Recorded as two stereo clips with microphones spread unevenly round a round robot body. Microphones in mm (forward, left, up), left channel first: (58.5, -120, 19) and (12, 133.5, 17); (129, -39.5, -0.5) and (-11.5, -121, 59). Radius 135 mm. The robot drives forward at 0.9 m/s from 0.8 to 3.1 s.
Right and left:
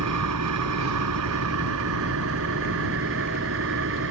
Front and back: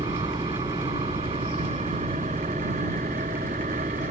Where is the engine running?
140° left; by 4.1 s 145° left.